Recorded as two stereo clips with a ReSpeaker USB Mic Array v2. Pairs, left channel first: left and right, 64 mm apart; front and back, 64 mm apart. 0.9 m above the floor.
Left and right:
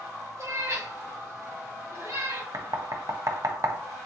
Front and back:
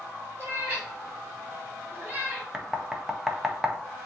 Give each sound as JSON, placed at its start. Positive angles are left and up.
{"t": 0.4, "sound": "a cat meowing", "azimuth_deg": -120, "distance_m": 3.0}
{"t": 2.5, "sound": "knocking", "azimuth_deg": -100, "distance_m": 0.6}